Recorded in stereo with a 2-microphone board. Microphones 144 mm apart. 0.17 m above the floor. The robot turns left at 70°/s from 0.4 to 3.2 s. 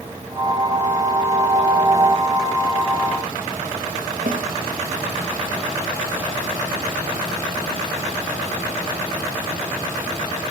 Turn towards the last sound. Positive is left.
turn(degrees=-65)  # may be behind; listen again after turning